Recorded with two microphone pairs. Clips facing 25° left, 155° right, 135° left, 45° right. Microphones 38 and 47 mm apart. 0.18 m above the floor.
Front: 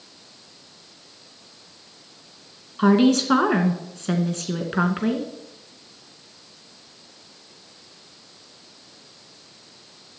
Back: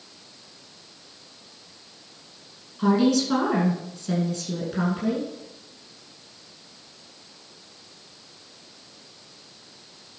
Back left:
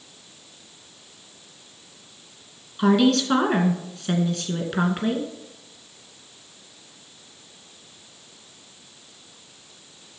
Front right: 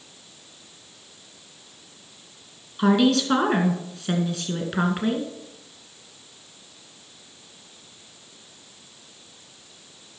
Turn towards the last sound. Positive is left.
turn(degrees=40)